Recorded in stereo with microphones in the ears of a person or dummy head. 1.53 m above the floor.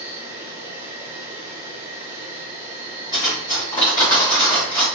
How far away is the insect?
About 1.2 m.